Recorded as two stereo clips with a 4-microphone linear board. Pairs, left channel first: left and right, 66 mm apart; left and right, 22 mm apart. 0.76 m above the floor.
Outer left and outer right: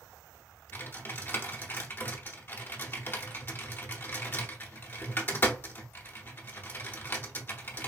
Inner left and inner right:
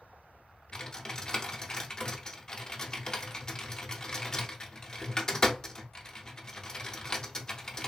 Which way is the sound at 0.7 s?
30° left (ahead or behind).